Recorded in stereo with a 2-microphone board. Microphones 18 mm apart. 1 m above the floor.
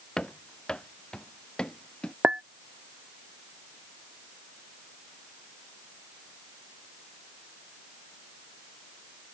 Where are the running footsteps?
45° left (ahead or behind); by 2.1 s 55° left (ahead or behind).